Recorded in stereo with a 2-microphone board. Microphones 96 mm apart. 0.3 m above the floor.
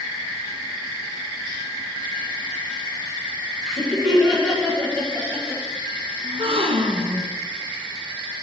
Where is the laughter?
Centre (ahead or behind), 3 m.